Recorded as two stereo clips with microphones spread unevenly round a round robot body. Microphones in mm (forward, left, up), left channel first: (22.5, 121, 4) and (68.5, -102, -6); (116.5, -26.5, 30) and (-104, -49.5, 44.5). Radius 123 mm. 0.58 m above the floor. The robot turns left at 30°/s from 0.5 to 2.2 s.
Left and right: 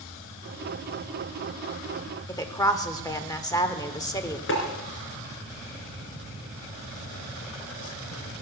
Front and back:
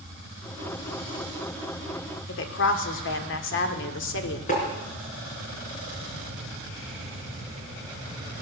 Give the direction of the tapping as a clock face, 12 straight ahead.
10 o'clock.